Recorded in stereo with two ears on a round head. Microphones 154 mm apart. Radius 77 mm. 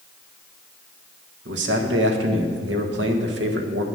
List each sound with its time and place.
1.4 s a man speaking: 70° right (ahead or behind), 1.4 m